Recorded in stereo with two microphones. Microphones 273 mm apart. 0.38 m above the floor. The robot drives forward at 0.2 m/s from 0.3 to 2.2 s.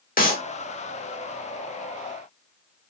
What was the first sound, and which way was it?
A clap, 30° left (ahead or behind).